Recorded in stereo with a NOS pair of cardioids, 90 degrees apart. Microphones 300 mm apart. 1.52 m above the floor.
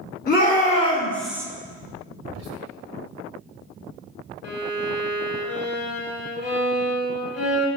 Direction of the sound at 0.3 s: 30° left.